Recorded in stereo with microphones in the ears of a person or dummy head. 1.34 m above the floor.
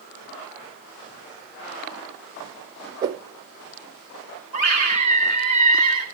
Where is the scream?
90° left, 7 m.